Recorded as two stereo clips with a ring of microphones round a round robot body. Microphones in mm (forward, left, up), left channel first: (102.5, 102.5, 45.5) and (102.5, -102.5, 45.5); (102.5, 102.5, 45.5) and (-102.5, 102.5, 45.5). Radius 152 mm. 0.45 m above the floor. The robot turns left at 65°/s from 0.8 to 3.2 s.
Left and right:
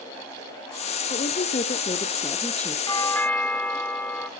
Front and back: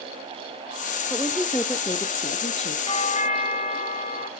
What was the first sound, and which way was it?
A woman speaking, 110° left.